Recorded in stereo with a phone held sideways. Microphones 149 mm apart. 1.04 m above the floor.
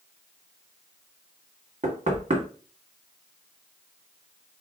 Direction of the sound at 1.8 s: 60° right (ahead or behind).